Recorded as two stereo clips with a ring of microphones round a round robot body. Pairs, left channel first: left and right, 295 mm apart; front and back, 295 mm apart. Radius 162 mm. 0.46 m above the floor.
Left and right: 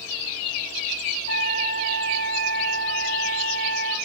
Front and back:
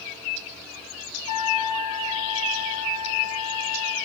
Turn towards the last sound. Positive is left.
turn(degrees=35)